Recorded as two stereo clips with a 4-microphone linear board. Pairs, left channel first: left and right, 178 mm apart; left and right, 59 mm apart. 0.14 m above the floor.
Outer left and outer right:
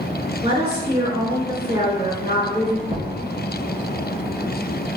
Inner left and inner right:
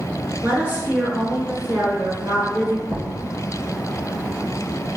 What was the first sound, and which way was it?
A woman speaking, 35° right (ahead or behind).